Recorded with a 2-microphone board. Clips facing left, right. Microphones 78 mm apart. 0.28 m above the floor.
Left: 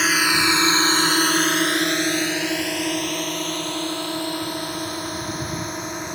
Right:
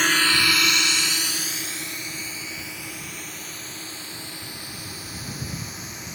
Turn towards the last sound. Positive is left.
turn(degrees=60)  # may be behind; listen again after turning